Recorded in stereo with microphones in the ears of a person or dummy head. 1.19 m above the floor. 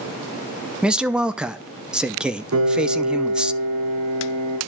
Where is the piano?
80° right, 4 m.